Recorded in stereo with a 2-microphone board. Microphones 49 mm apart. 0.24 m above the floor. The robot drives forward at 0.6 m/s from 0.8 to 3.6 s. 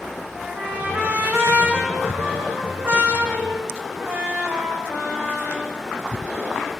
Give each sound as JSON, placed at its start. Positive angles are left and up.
{"t": 0.3, "sound": "a trumpet", "side_deg": -40, "distance_m": 9.0}